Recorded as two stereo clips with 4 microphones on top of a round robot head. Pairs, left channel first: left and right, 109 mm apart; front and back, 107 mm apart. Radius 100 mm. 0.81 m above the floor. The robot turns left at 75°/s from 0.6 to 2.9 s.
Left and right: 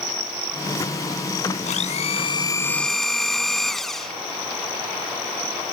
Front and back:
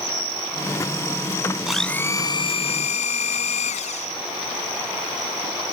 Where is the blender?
95° left; by 4.2 s straight ahead.